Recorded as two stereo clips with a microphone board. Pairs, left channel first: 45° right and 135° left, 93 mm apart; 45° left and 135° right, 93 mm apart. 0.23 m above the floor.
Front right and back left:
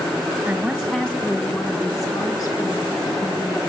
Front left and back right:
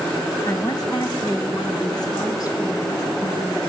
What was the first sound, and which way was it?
A woman speaking, 70° left.